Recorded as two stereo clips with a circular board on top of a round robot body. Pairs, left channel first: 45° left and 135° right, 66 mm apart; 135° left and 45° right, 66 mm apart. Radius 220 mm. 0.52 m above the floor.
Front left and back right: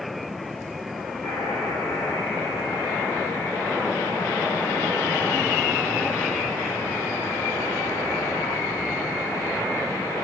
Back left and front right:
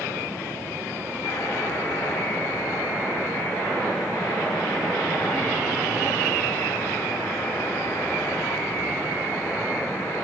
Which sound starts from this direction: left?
A buzzer, at 1.2 s.